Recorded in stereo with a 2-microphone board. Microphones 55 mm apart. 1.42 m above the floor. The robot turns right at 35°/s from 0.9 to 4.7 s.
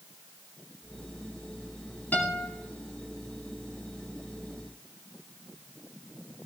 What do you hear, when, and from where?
2.1 s a guitar: 35° left (ahead or behind), 2.5 m; by 2.5 s 50° left (ahead or behind), 2.5 m